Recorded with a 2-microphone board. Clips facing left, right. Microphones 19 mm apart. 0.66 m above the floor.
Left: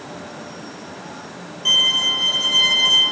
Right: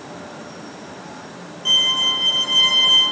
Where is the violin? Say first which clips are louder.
Left 1 dB; 20° left (ahead or behind), 4.5 m.